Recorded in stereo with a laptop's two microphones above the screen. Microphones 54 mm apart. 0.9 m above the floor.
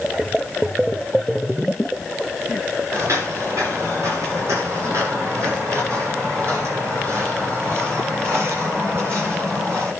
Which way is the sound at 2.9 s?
70° right (ahead or behind).